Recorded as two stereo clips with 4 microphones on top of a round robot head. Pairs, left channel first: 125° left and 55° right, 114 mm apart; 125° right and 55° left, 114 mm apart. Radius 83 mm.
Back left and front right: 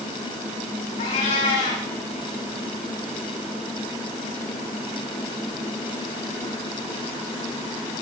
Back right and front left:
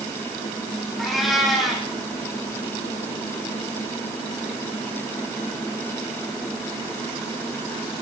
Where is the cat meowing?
145° left, 8 m.